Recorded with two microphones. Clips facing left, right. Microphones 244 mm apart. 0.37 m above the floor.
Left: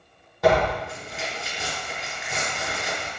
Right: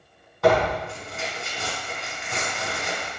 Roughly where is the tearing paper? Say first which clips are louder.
Even; centre.